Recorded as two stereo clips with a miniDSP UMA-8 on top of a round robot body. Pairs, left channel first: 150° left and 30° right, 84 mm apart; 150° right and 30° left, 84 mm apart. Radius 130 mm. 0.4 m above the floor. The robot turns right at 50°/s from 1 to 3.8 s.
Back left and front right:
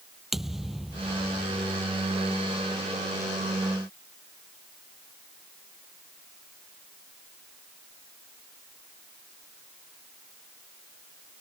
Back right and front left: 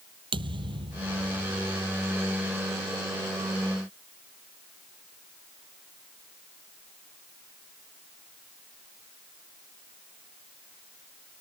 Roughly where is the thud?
Ahead left.